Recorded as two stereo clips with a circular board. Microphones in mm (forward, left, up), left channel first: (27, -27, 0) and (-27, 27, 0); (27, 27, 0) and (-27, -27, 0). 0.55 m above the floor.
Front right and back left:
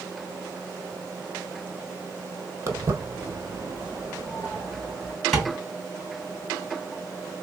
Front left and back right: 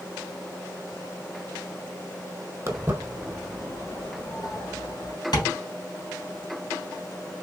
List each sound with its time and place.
2.7 s footsteps: straight behind, 1.0 m; by 5.2 s 55° left, 1.8 m
5.3 s tapping: 45° left, 2.5 m